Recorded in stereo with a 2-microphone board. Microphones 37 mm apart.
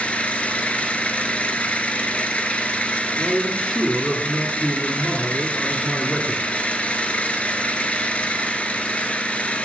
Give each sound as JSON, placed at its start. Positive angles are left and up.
{"t": 0.0, "sound": "an engine running", "side_deg": 40, "distance_m": 1.0}
{"t": 3.2, "sound": "a man speaking", "side_deg": 15, "distance_m": 2.5}